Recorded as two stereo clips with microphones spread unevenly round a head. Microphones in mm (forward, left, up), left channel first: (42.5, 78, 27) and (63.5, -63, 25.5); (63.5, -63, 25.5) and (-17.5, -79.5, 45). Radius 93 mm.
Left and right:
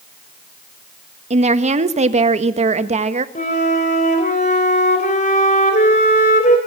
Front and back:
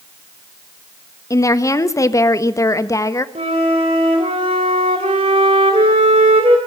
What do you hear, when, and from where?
1.3 s a woman speaking: 40° right, 1.5 m
3.4 s a flute: 150° left, 3 m